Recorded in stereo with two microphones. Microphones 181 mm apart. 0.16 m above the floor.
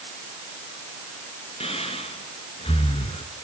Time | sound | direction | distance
1.6 | breathing | 35° left (ahead or behind) | 2.0 m